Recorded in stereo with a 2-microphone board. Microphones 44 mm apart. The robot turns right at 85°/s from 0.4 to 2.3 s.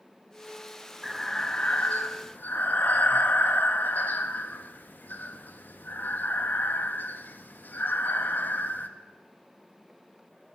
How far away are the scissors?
No scissors in this recording.